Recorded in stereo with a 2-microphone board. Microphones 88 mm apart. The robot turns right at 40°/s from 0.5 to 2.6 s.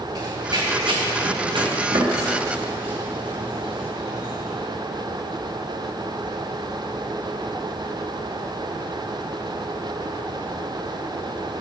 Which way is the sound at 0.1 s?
55° right (ahead or behind).